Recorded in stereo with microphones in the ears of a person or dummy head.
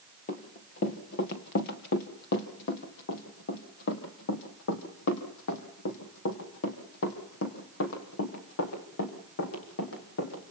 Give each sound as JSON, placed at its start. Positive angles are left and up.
{"t": 0.3, "sound": "running footsteps", "side_deg": 45, "distance_m": 2.5}